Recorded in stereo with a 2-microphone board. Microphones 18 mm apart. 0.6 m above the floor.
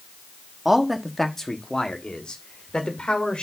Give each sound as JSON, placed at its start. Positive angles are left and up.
{"t": 0.7, "sound": "a man speaking", "side_deg": -15, "distance_m": 1.2}